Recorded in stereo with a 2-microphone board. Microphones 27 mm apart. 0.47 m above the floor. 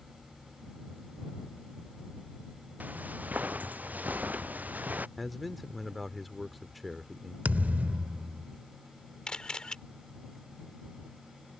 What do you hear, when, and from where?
2.8 s footsteps: 75° right (ahead or behind); by 5.1 s 80° right
5.2 s a man speaking: centre (ahead or behind)
7.5 s a thud: 75° right (ahead or behind)
9.3 s a camera shutter: 30° left (ahead or behind)